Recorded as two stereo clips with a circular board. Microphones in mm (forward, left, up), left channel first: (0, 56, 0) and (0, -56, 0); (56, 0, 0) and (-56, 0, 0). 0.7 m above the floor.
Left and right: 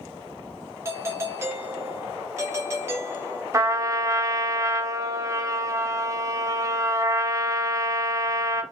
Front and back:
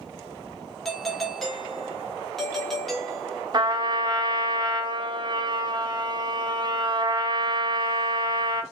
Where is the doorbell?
85° right, 0.9 m.